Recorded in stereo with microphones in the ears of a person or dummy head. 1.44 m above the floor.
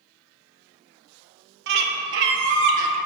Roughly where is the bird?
Right.